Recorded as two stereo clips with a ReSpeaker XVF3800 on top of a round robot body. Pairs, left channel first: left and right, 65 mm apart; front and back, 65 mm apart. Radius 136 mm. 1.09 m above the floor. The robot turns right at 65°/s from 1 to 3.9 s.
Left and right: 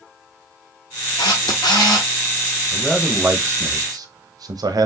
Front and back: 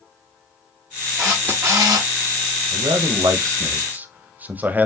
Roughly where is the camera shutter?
Left.